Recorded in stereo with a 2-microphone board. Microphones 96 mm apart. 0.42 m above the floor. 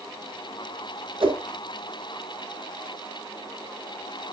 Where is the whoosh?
65° right (ahead or behind), 2.5 m.